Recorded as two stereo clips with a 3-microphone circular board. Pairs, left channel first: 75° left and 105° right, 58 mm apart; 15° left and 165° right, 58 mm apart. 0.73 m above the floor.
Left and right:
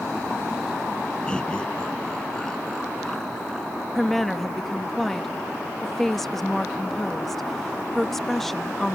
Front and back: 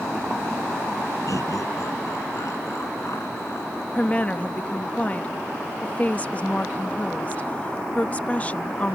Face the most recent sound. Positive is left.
turn(degrees=-5)